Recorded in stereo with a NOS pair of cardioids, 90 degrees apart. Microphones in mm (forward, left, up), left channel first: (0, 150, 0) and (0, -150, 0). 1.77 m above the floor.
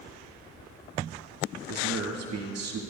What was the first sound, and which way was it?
A man speaking, 65° right.